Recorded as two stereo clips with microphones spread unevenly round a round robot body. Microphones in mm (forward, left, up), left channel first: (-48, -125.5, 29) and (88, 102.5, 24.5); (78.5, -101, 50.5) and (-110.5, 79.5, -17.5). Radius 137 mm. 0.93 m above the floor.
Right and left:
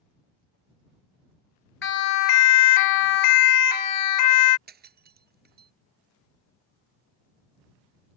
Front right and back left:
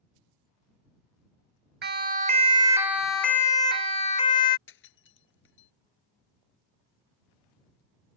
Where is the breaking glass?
5° left.